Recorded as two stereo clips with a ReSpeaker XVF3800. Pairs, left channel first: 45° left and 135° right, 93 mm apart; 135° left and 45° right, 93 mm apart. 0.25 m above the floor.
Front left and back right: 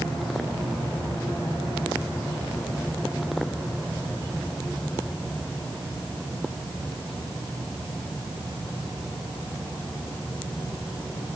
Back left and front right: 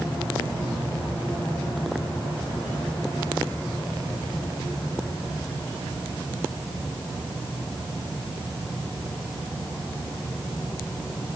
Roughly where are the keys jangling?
I don't hear keys jangling.